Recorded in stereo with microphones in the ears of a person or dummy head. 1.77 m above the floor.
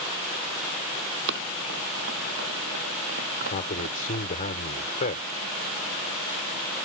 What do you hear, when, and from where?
1.3 s running footsteps: 60° right (ahead or behind)
3.5 s a man speaking: 40° left (ahead or behind)